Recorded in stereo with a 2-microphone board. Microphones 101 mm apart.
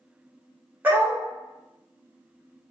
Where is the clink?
No clink in this recording.